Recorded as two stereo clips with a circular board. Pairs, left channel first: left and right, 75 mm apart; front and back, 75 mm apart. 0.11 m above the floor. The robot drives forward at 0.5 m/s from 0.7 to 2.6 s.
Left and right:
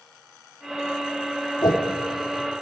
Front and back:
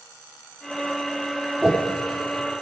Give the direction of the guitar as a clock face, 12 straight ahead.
No guitar in this recording.